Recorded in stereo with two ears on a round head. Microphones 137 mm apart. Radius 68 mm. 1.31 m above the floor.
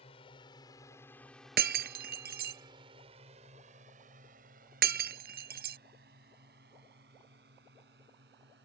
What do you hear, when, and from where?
0.0 s a drone: 40° left (ahead or behind); by 8.7 s 75° right (ahead or behind)
1.6 s breaking glass: 70° right (ahead or behind)